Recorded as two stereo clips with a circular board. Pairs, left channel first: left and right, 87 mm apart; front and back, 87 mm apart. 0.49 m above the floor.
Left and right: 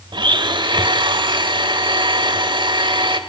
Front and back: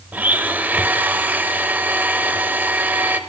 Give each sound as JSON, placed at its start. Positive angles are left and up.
{"t": 0.1, "sound": "a blender", "azimuth_deg": -110, "distance_m": 1.0}